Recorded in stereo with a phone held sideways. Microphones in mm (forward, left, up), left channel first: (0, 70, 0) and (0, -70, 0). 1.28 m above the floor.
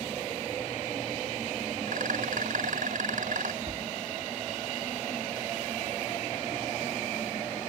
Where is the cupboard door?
45° right (ahead or behind).